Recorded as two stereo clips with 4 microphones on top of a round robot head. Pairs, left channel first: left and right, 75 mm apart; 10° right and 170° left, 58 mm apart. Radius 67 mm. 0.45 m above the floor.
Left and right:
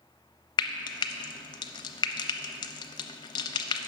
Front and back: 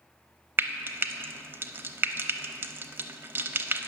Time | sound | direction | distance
0.6 | frying | 115° left | 0.6 m